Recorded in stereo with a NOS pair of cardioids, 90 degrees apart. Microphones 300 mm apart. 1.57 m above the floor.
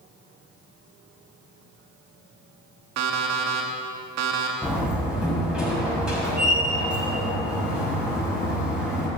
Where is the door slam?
5° right, 6.5 m.